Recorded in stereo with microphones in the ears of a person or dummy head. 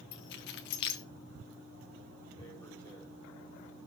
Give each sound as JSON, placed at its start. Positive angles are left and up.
{"t": 0.1, "sound": "keys jangling", "side_deg": 55, "distance_m": 0.9}
{"t": 2.4, "sound": "tearing paper", "side_deg": 5, "distance_m": 4.5}